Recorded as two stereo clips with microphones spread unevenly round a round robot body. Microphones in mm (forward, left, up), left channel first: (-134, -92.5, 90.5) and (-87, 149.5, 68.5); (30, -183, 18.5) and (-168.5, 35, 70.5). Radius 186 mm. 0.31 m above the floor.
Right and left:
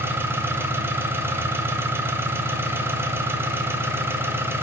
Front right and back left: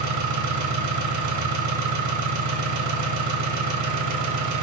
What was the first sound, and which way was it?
An engine running, 160° left.